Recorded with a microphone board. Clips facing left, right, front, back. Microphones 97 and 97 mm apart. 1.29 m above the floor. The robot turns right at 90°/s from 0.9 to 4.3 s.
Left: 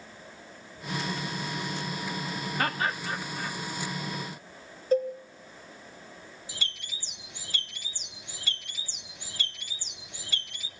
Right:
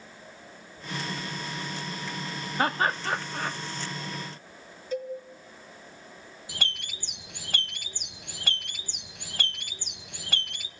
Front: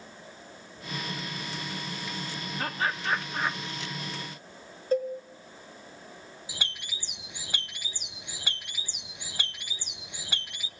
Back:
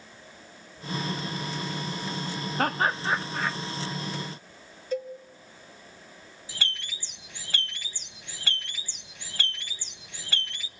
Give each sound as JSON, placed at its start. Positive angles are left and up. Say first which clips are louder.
{"t": 2.6, "sound": "laughter", "louder": "right 5 dB, back 5 dB", "azimuth_deg": -155, "distance_m": 1.9}
{"t": 4.9, "sound": "a cowbell", "louder": "left 7 dB, front 5 dB", "azimuth_deg": 45, "distance_m": 3.5}
{"t": 6.5, "sound": "a bird", "louder": "right 5 dB, back 4 dB", "azimuth_deg": -75, "distance_m": 1.0}